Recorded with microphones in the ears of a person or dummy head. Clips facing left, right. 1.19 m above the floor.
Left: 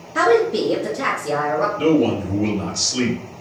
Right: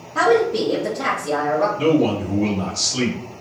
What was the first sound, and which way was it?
A woman speaking, 20° left (ahead or behind).